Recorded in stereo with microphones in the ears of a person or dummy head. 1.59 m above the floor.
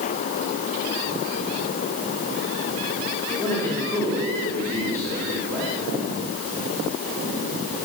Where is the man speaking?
15° left (ahead or behind), 4.5 m.